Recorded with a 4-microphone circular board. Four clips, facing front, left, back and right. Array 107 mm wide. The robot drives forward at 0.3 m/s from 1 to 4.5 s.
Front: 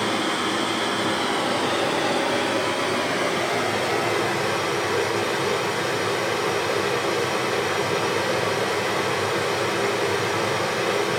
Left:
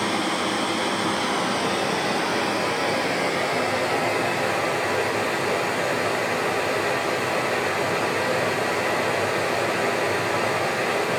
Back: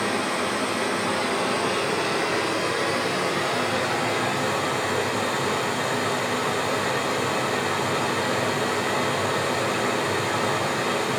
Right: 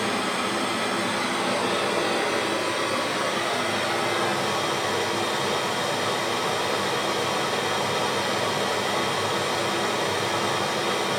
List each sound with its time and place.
0.0 s running water: 50° left, 2.5 m; by 11.2 s 75° left, 2 m